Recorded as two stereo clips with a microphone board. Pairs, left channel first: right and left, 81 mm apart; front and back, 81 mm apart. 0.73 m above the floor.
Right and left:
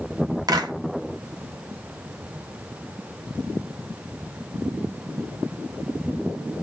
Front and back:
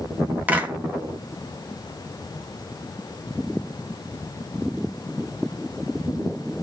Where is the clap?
115° left, 1.5 m.